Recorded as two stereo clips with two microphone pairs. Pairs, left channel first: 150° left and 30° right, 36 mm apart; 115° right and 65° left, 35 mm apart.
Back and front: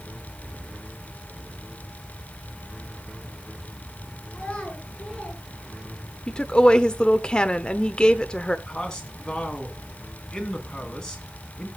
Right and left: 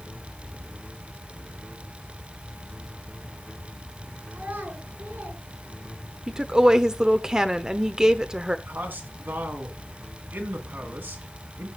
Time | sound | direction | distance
4.3 | a child speaking | 75° left | 5 m
6.3 | a woman speaking | 105° left | 0.9 m
8.7 | a man speaking | 75° left | 3.5 m